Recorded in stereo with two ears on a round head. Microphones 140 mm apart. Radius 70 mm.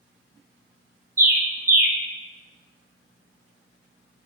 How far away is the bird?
About 0.5 m.